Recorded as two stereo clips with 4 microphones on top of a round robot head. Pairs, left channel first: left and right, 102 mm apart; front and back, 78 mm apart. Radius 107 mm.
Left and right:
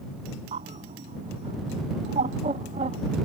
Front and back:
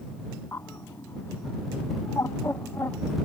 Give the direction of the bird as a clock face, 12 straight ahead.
2 o'clock.